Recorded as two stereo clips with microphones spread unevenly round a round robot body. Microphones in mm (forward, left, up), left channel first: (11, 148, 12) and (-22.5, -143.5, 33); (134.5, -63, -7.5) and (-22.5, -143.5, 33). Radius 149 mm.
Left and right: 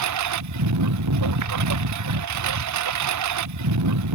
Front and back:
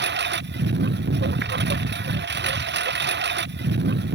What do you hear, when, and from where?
0.0 s a lawn mower: 130° right